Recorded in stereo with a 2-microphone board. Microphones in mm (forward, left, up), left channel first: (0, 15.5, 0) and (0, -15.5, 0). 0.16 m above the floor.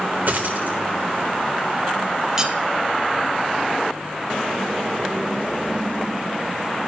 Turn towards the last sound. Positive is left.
turn(degrees=-15)  # may be behind; listen again after turning